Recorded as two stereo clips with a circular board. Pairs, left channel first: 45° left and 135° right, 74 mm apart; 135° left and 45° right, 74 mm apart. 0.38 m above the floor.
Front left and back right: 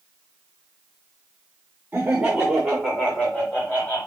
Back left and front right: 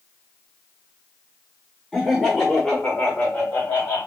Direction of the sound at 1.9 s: 130° right.